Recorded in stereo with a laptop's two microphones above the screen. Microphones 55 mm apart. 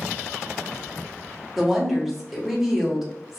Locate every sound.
1.6 s a woman speaking: 5° right (ahead or behind), 1.1 m